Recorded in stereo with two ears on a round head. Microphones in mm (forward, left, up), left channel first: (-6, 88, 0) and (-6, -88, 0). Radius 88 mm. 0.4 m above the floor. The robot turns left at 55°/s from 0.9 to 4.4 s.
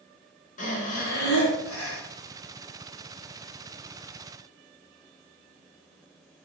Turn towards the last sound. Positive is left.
turn(degrees=-55)